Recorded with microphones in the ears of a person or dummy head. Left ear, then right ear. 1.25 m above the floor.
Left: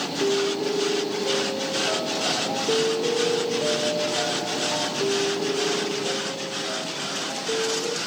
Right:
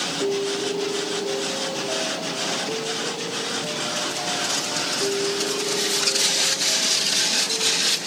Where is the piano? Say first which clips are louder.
Left 3 dB; 30° left (ahead or behind), 0.8 m.